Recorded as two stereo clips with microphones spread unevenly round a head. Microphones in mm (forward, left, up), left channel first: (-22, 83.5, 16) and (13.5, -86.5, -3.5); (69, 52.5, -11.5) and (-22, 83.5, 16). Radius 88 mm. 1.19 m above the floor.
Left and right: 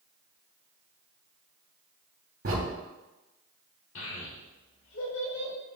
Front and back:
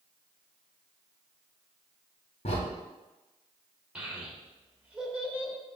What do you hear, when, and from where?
2.5 s a crack: 50° right, 2.5 m
4.0 s a child speaking: 85° left, 2.5 m